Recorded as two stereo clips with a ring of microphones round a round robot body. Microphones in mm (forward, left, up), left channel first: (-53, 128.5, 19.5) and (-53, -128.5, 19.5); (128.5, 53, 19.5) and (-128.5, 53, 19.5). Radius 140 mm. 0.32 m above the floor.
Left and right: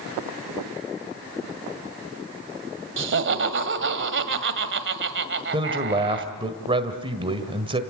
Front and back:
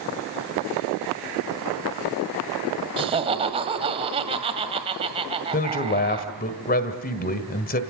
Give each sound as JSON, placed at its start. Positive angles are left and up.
{"t": 3.0, "sound": "laughter", "azimuth_deg": -115, "distance_m": 1.9}
{"t": 5.5, "sound": "a man speaking", "azimuth_deg": -30, "distance_m": 1.6}